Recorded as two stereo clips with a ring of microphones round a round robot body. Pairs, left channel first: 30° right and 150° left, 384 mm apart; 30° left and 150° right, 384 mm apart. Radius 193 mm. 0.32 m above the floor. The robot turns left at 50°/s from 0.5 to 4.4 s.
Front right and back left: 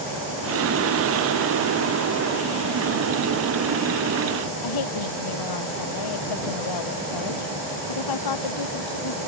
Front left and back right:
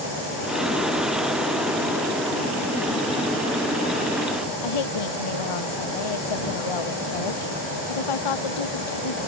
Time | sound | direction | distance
4.6 | a woman speaking | 5° left | ?